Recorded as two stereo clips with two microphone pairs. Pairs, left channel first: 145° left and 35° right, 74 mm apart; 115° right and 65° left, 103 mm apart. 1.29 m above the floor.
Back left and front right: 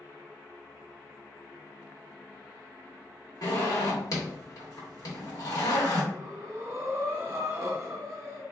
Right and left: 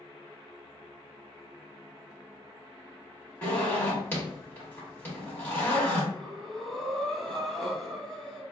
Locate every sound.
3.4 s a zipper: 170° left, 1.8 m
6.1 s breathing: 30° right, 0.8 m